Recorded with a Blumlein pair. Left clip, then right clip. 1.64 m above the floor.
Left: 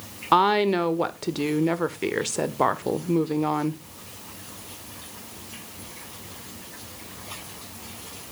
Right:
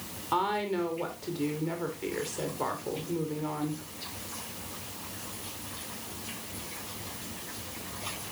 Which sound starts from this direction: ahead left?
A woman speaking, at 0.3 s.